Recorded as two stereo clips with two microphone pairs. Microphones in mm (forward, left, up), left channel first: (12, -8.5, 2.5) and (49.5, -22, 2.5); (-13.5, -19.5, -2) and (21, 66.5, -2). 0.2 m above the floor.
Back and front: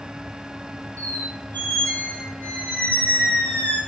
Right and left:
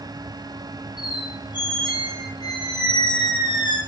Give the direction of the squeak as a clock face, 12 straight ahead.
5 o'clock.